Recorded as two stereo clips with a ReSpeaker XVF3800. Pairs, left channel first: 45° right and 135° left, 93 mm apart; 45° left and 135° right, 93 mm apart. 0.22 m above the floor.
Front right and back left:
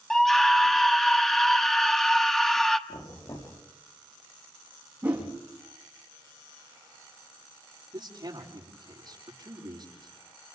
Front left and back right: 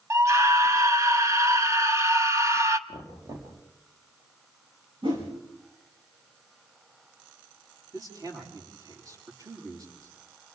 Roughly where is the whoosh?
Behind right.